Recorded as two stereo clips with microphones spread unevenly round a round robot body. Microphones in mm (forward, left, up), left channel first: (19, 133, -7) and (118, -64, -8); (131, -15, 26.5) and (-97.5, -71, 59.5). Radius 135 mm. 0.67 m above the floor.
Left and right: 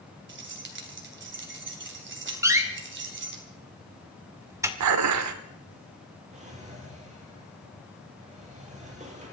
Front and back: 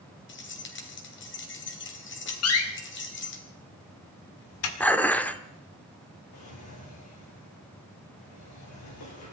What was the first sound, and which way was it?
Keys jangling, 25° right.